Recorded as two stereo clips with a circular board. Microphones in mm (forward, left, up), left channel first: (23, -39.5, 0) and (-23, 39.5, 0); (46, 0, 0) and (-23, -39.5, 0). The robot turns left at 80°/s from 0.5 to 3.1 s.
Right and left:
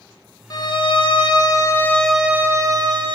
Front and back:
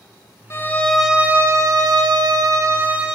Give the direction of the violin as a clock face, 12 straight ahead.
1 o'clock.